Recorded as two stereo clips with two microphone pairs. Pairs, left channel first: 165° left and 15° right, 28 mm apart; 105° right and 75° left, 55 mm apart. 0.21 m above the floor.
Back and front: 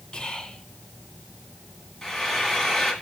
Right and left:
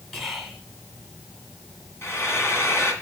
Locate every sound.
0.1 s whispering: straight behind, 1.5 m
2.0 s frying: 115° right, 2.0 m